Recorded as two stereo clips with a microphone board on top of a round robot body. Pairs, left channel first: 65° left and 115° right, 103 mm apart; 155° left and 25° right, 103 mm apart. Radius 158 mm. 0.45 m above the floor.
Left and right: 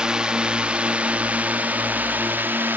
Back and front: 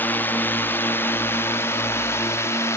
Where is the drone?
Straight behind; by 2.8 s 165° right.